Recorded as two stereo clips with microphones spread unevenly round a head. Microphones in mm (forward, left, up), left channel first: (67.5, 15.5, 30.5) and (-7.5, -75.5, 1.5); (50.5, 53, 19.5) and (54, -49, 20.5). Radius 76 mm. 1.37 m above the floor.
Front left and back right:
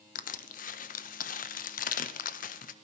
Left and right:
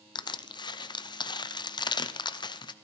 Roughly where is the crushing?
Ahead left.